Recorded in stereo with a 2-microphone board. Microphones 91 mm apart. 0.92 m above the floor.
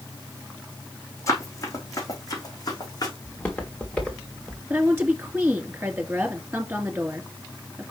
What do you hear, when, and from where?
1.3 s running footsteps: 35° left (ahead or behind), 3 m; by 3.1 s 45° left (ahead or behind), 4 m
3.2 s footsteps: 15° left (ahead or behind), 3.5 m; by 4.6 s 5° left (ahead or behind), 3.5 m
4.7 s a woman speaking: 20° right (ahead or behind), 2.5 m